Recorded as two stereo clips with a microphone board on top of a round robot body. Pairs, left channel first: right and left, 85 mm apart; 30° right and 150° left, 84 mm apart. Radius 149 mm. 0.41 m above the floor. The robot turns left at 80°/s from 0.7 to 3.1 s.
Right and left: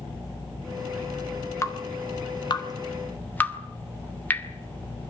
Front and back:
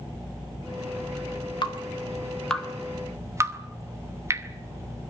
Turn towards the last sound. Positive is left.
turn(degrees=-155)